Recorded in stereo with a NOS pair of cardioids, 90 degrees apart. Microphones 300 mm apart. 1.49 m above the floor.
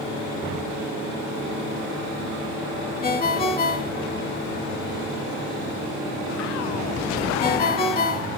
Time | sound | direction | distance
3.0 | a ringtone | 30° left | 1.8 m